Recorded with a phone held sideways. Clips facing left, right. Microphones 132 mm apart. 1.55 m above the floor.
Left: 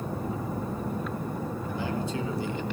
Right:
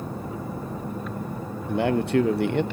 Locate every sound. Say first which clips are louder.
1.7 s a man speaking: right 12 dB; 65° right (ahead or behind), 0.9 m